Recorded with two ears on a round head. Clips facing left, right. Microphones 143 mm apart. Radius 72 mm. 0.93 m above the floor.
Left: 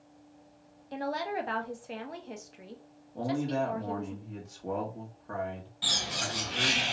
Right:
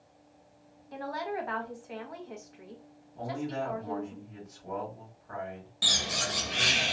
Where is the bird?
55° right (ahead or behind), 0.6 m.